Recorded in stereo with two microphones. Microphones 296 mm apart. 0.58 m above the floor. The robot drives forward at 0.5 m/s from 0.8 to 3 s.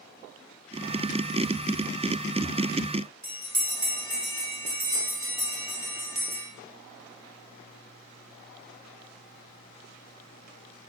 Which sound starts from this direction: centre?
A bell, at 3.2 s.